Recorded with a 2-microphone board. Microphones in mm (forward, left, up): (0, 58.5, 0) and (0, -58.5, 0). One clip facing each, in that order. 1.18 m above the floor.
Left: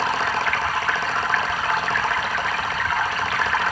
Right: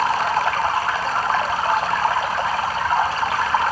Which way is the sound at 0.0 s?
35° right (ahead or behind).